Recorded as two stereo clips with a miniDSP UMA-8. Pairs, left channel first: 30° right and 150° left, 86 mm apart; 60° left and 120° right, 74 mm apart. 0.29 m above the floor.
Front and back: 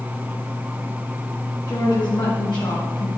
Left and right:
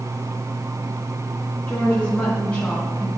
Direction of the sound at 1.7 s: 10° right.